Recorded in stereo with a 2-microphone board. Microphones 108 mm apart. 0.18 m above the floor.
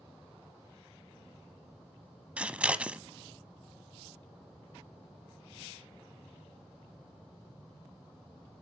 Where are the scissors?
10° right (ahead or behind), 0.6 m.